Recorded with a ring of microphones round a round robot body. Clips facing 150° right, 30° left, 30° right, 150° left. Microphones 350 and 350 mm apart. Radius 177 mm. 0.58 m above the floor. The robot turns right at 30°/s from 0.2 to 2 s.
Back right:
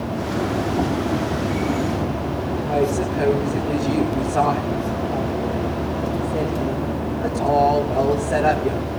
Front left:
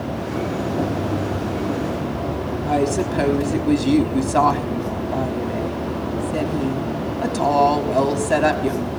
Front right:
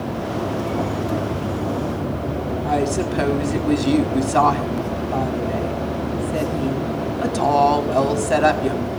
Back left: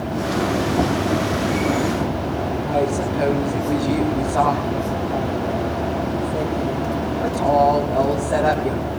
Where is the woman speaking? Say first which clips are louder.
Front left 1 dB, front right 1 dB; 5° left, 5.5 m.